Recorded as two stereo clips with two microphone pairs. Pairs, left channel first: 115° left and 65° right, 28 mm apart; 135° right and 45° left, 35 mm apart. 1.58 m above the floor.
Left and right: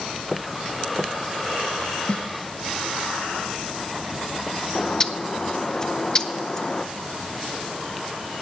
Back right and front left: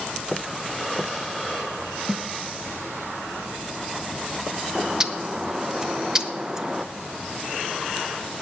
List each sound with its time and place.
2.1 s a snare drum: 130° left, 0.7 m
4.8 s a bird: 110° left, 0.6 m